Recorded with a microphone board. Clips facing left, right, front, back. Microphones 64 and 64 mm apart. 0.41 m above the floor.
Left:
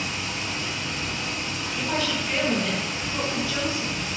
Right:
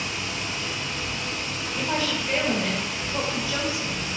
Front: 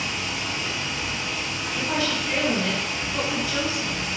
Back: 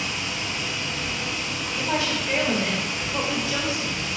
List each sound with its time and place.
0.0 s running water: 70° left, 1.6 m
1.8 s a woman speaking: 160° right, 1.3 m